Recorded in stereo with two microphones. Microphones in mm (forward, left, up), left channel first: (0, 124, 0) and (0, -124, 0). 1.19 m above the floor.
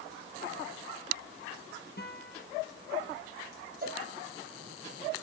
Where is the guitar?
40° left (ahead or behind), 1.0 m.